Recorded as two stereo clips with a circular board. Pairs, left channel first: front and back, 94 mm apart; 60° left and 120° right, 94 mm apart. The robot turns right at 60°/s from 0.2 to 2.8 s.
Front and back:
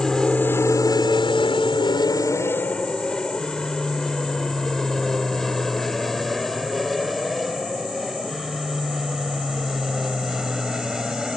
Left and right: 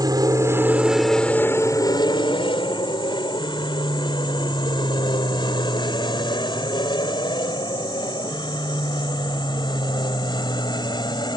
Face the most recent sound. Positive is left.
turn(degrees=95)